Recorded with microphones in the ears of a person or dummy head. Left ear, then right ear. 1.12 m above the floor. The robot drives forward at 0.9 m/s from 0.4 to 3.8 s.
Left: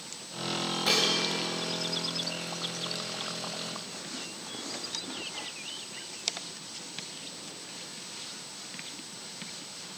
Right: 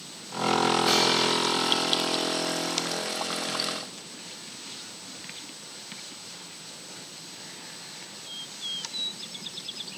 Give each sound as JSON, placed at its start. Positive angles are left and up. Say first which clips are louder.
{"t": 0.9, "sound": "dishes clattering", "louder": "even", "side_deg": 15, "distance_m": 1.0}